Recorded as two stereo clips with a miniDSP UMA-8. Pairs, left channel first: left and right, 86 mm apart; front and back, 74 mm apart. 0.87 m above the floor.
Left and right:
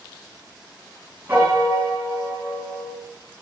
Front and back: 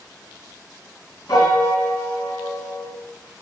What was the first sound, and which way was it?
A piano, 30° right.